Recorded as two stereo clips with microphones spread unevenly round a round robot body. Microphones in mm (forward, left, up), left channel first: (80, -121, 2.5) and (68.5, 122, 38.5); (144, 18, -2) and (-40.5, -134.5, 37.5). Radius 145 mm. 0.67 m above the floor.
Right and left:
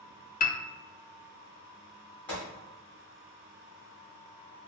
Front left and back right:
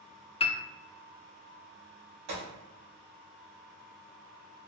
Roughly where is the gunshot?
Behind.